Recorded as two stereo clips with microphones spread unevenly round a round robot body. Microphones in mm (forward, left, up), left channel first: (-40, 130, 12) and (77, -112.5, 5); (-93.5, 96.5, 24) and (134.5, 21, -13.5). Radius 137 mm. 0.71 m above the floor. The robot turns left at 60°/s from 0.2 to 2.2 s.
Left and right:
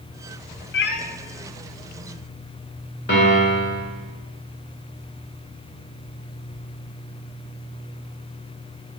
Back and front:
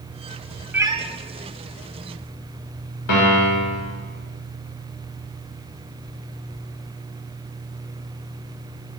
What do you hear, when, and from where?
0.7 s a cat meowing: 65° left, 0.5 m; by 1.0 s 50° left, 0.5 m
3.1 s a piano: 170° left, 2 m